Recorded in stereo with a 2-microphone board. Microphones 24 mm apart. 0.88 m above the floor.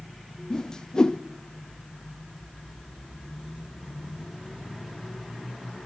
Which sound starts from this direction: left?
A whoosh, at 0.5 s.